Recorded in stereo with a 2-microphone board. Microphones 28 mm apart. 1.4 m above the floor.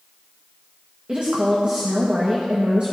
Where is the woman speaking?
40° right (ahead or behind), 1.1 m.